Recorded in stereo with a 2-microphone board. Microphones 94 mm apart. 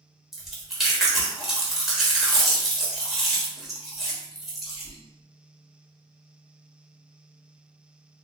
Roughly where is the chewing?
Centre.